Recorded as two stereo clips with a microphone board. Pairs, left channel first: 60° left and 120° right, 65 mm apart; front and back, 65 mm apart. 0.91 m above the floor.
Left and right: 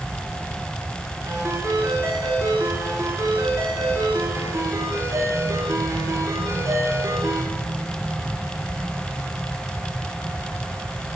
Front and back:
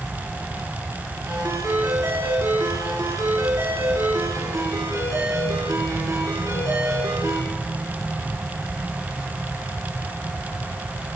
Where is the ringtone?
155° right, 8.5 m.